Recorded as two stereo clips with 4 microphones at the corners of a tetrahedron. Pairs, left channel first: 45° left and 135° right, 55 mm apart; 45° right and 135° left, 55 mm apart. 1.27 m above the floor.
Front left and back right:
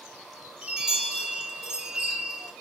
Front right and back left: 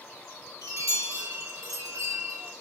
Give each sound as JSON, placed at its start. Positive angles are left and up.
{"t": 0.6, "sound": "a chime", "azimuth_deg": 150, "distance_m": 1.4}